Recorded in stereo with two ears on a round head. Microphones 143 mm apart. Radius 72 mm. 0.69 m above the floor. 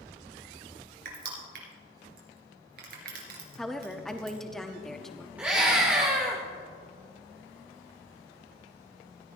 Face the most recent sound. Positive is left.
turn(degrees=-10)  # may be behind; listen again after turning